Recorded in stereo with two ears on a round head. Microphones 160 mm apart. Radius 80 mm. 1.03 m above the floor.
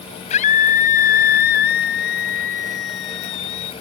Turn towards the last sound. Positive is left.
turn(degrees=75)  # may be behind; listen again after turning